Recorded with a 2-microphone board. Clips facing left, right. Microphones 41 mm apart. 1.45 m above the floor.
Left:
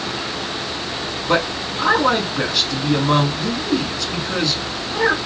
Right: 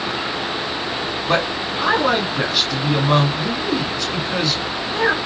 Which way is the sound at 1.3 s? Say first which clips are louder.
Left 1 dB; centre (ahead or behind).